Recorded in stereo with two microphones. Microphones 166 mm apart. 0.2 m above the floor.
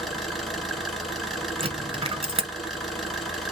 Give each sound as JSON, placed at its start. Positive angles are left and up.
{"t": 0.0, "sound": "an engine running", "side_deg": 0, "distance_m": 1.3}
{"t": 1.6, "sound": "a dropped coin", "side_deg": -35, "distance_m": 0.7}